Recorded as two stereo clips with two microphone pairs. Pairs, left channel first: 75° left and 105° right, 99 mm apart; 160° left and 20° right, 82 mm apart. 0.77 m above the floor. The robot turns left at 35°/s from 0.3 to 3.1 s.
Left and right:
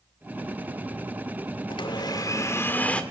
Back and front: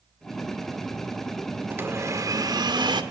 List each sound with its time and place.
1.7 s a blender: 40° left, 1.7 m; by 3.0 s 5° right, 1.7 m